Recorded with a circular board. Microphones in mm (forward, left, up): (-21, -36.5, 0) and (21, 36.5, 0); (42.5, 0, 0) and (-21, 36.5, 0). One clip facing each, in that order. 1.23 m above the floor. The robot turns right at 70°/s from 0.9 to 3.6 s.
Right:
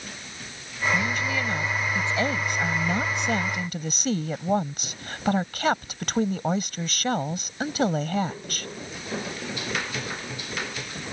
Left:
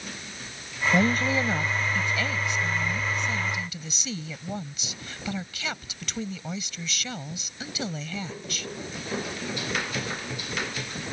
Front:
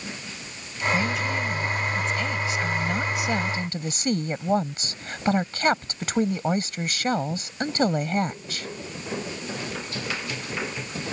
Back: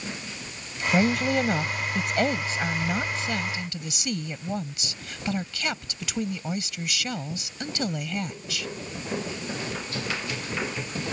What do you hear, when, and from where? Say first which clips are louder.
0.9 s a woman speaking: left 6 dB, back 6 dB; 95° left; by 8.7 s 80° right